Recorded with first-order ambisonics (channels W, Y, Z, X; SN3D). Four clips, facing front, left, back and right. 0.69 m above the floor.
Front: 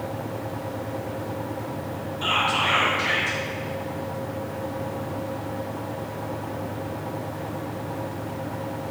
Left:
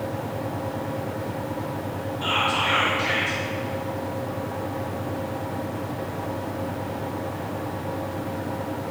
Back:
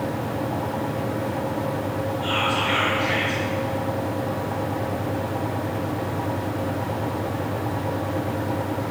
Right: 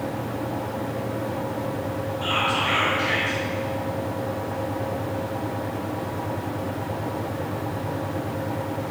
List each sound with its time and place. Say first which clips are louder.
2.2 s whispering: left 1 dB, front 2 dB; 10° left, 0.9 m